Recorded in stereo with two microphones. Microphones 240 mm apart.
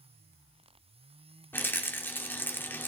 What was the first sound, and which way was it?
A rattle, 10° left (ahead or behind).